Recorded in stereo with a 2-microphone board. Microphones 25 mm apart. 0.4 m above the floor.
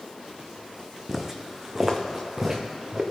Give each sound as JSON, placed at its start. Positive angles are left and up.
{"t": 1.1, "sound": "footsteps", "side_deg": -15, "distance_m": 1.1}